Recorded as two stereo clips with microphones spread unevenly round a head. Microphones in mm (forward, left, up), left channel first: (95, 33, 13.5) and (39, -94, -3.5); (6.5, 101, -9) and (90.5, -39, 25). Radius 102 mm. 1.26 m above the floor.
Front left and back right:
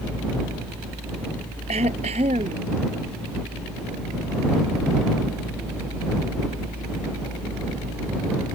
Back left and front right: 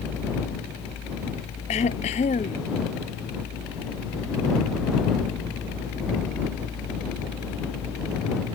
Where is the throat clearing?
175° right.